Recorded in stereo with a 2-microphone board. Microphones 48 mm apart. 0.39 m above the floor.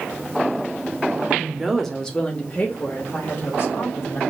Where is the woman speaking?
20° right (ahead or behind), 0.8 m; by 4.2 s 65° left (ahead or behind), 1.7 m.